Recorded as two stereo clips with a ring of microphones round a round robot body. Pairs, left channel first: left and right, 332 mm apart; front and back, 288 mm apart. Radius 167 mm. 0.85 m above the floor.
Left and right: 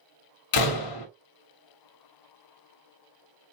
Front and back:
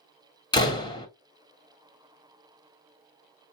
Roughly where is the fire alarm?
No fire alarm in this recording.